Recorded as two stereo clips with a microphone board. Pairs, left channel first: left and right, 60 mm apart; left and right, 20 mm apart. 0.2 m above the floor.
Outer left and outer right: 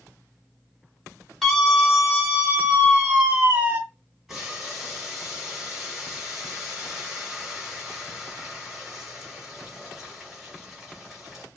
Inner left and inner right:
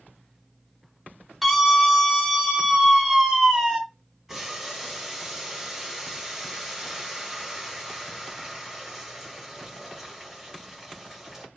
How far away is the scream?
About 1.4 m.